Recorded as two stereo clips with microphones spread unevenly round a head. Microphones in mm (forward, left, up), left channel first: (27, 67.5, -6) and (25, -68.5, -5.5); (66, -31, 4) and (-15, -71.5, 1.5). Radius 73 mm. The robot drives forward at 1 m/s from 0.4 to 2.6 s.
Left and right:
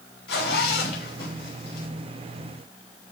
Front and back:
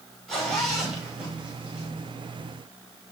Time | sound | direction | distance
0.3 | a zipper | 115° left | 6.5 m